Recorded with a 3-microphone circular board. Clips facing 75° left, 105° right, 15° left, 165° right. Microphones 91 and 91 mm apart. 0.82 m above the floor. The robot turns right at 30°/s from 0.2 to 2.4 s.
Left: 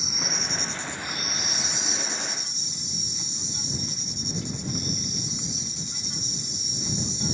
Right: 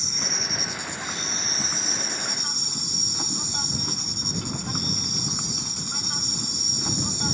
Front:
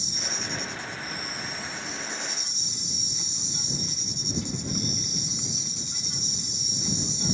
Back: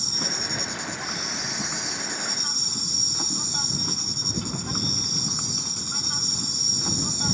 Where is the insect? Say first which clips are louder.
Even, back 3 dB; 160° left; by 7.3 s 135° right.